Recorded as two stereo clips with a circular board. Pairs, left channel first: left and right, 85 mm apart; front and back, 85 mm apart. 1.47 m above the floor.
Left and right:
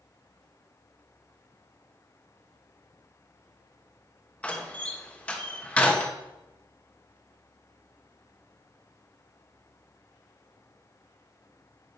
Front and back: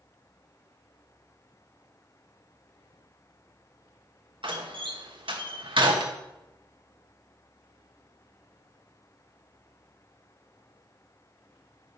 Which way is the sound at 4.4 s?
165° left.